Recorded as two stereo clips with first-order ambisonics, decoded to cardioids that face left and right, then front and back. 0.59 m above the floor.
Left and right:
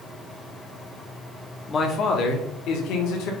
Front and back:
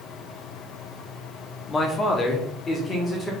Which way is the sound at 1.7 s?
45° left.